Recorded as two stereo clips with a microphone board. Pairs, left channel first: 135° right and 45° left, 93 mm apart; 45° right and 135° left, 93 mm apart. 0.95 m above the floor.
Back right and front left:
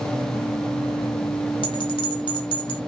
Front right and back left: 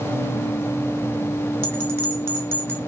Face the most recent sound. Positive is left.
turn(degrees=-155)